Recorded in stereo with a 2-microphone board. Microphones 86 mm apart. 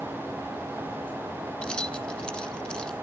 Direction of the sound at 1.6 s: 10° left (ahead or behind).